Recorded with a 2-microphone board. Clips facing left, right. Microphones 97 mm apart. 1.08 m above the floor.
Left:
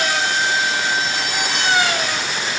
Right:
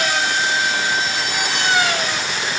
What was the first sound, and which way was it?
Only background noise.